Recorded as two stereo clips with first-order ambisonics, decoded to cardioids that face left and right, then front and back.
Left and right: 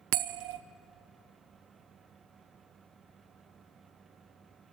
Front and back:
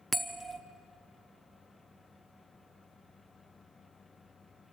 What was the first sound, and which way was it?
A bell, 90° right.